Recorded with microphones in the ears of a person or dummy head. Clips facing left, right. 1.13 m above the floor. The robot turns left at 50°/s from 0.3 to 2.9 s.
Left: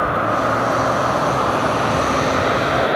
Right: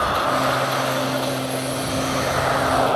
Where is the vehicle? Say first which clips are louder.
Left 2 dB; 40° left (ahead or behind); by 3.0 s 20° left (ahead or behind).